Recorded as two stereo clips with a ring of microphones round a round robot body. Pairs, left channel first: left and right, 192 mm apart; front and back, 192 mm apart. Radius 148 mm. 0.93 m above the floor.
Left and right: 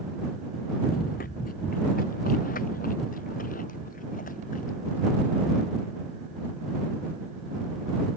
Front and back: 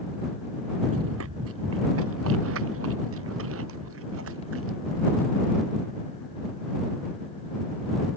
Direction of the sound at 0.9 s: 150° left.